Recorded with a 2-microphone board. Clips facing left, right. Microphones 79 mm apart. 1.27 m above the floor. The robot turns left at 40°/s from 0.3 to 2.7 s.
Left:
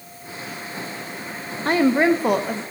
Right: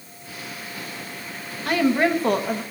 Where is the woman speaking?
35° left, 0.8 m; by 2.6 s 5° right, 0.8 m.